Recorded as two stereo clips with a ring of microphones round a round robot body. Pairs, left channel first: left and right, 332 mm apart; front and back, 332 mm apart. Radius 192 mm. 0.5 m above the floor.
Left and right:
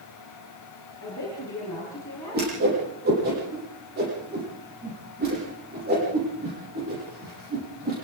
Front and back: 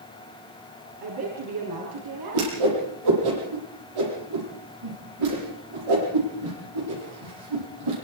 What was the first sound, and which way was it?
A woman speaking, 170° left.